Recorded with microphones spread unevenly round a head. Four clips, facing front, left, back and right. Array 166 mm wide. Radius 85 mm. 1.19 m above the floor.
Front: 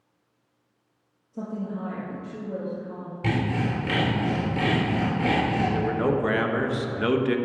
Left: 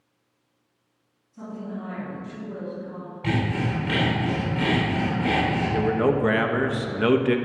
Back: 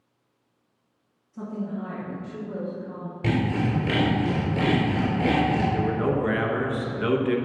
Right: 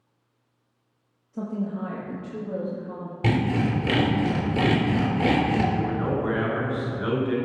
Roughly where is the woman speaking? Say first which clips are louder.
Right 5 dB, even; ahead right.